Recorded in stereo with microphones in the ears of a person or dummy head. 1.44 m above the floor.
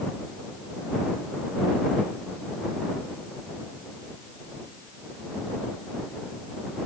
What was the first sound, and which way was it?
Only background noise.